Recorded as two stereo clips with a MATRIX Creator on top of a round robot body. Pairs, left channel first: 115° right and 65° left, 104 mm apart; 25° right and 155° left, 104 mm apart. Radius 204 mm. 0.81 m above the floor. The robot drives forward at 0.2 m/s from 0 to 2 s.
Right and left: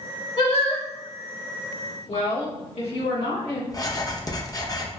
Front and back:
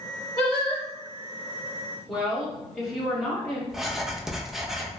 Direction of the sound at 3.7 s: 120° right.